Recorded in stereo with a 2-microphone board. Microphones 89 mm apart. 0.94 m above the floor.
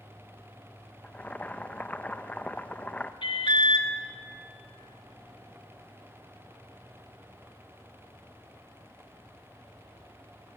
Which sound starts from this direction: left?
An alarm, at 3.2 s.